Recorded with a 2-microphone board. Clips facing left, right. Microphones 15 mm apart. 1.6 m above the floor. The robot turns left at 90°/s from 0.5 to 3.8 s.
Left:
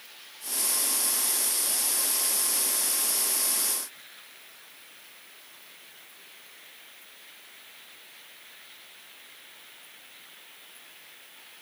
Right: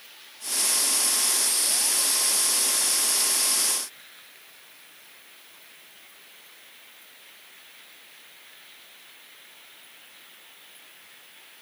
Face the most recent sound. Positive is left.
No sound to turn to.